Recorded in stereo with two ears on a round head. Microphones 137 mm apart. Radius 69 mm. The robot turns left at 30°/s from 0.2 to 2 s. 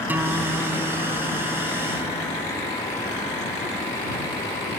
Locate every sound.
0.1 s a guitar: 170° right; by 2.6 s 140° left